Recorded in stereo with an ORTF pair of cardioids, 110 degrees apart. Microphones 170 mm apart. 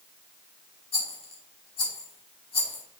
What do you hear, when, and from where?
0.9 s a rattle: 35° left, 2.5 m